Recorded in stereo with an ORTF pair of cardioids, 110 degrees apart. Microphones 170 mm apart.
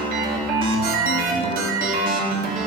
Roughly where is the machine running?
Ahead right.